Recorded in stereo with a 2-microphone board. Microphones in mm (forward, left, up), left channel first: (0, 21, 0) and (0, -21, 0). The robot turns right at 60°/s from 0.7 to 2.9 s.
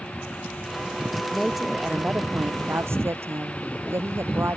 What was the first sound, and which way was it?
A woman speaking, 170° left.